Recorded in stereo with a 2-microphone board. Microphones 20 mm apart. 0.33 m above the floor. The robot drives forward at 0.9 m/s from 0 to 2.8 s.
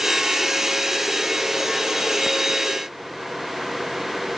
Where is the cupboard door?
No cupboard door in this recording.